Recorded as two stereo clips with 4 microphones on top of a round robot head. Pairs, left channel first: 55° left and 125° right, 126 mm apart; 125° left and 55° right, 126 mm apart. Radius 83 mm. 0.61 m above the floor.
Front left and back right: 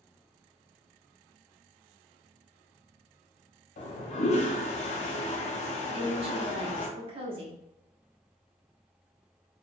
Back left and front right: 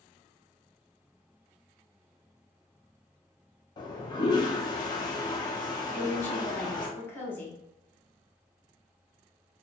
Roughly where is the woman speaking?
Behind.